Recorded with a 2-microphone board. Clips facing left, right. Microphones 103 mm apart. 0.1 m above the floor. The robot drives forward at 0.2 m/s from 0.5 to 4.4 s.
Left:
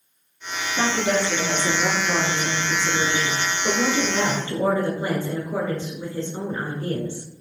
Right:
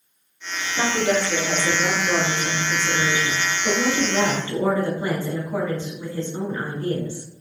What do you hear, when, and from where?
0.8 s a woman speaking: 15° left (ahead or behind), 1.4 m